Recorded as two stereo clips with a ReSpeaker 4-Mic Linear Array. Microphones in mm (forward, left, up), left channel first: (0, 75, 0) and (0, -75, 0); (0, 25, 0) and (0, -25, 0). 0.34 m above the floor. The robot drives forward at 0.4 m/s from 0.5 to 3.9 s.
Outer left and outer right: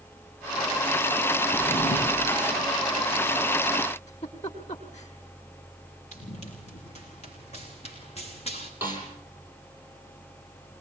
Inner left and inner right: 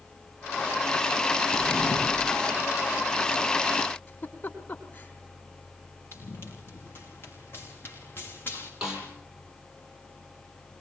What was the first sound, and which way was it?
A drawer, 40° left (ahead or behind).